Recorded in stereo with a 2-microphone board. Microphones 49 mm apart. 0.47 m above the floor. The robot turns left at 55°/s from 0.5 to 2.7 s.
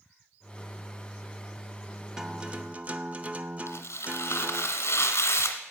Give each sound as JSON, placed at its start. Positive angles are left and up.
{"t": 2.2, "sound": "a guitar", "side_deg": -10, "distance_m": 0.6}
{"t": 3.7, "sound": "tearing paper", "side_deg": 65, "distance_m": 1.5}